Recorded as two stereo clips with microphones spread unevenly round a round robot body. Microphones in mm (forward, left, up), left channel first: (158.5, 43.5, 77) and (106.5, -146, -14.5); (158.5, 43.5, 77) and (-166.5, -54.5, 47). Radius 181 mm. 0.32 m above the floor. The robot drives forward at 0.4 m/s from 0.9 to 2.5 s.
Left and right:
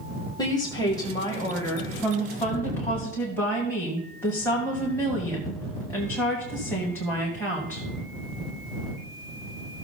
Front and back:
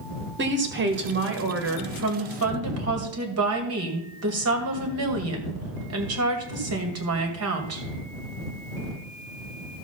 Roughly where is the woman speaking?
Behind.